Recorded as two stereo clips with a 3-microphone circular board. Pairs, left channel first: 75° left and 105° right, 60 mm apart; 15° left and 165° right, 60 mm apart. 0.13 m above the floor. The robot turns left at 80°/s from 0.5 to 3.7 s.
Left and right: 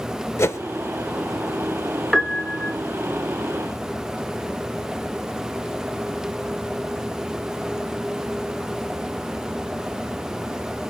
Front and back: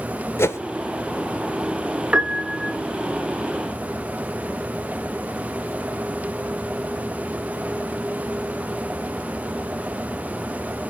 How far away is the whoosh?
About 0.9 m.